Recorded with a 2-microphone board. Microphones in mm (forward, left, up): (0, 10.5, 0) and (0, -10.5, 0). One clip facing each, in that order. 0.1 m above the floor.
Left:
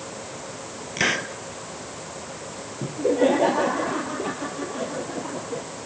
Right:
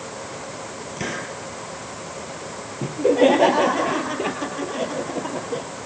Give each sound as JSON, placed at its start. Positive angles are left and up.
{"t": 1.0, "sound": "a hiss", "side_deg": 45, "distance_m": 2.5}
{"t": 2.8, "sound": "laughter", "side_deg": -45, "distance_m": 2.0}